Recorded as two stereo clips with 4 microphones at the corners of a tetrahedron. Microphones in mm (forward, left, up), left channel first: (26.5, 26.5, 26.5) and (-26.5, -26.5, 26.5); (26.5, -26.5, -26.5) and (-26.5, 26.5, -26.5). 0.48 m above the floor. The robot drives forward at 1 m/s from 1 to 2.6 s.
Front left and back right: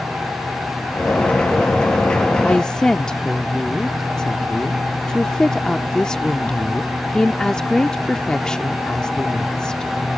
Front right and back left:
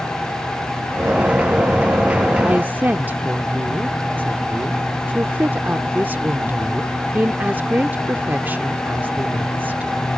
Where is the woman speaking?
90° left; by 9.9 s 115° left.